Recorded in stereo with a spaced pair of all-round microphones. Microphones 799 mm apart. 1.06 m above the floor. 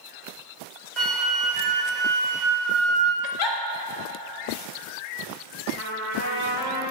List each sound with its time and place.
1.0 s a flute: 70° right (ahead or behind), 1.6 m
3.2 s a giggle: 90° left, 0.8 m
5.8 s a trumpet: 20° right (ahead or behind), 2.5 m